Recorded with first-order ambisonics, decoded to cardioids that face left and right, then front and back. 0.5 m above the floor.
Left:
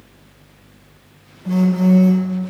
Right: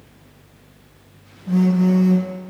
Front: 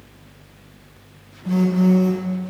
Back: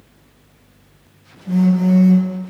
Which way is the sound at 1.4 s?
60° left.